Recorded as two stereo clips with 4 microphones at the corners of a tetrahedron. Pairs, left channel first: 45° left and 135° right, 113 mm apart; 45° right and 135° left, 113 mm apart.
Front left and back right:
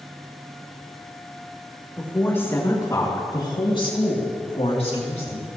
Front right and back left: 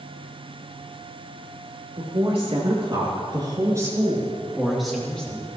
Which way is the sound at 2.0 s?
120° left.